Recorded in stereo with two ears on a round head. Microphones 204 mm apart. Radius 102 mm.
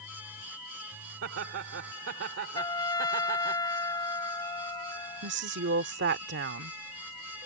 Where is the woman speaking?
50° right (ahead or behind).